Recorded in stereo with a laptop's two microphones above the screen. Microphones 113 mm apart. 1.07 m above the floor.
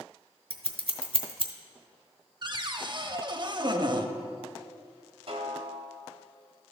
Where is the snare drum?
60° right (ahead or behind), 1.1 m.